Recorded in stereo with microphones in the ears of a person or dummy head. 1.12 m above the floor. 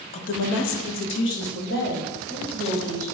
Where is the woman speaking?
35° left (ahead or behind), 0.6 m; by 3.0 s 50° left (ahead or behind), 2.5 m.